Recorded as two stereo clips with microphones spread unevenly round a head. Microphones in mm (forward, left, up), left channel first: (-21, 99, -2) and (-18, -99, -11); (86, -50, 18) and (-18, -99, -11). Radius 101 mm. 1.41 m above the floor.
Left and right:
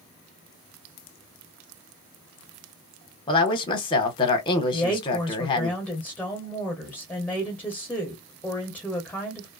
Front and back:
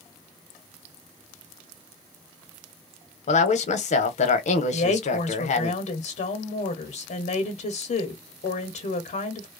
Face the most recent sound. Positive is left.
turn(degrees=10)